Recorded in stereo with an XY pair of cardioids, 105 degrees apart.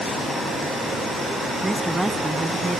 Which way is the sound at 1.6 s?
10° right.